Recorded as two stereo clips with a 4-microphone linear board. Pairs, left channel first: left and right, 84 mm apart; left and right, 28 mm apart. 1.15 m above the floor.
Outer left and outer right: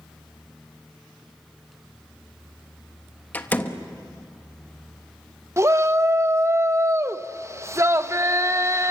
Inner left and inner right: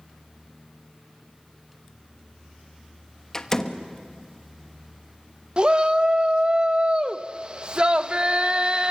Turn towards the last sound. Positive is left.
turn(degrees=-35)  # may be behind; listen again after turning